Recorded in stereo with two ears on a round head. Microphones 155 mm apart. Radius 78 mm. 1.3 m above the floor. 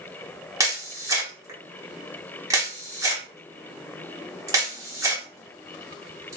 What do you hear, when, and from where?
0.6 s a camera shutter: 20° right (ahead or behind), 1.1 m